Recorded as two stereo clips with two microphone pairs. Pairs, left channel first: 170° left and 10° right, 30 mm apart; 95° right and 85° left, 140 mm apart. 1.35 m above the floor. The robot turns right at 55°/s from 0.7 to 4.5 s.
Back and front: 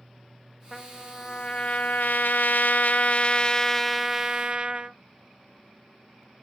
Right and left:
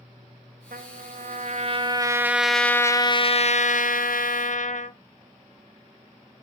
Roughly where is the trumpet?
Left.